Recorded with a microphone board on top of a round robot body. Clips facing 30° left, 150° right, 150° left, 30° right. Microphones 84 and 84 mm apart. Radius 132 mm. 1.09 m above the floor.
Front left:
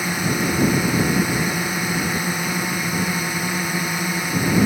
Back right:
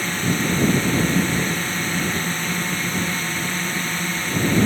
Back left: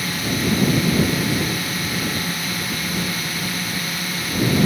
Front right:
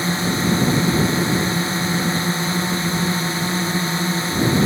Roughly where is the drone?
Ahead right.